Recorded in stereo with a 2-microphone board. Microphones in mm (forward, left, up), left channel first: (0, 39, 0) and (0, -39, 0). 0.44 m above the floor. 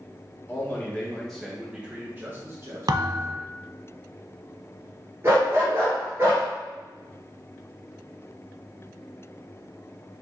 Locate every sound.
0.5 s a man speaking: 30° left (ahead or behind), 1.2 m; by 3.5 s 50° right (ahead or behind), 1.6 m
2.9 s a thud: 60° right (ahead or behind), 0.5 m
5.2 s a dog barking: 35° right (ahead or behind), 2 m